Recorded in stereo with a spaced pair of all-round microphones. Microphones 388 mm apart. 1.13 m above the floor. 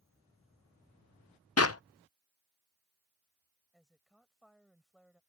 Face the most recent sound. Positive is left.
turn(degrees=0)  # may be behind; listen again after turning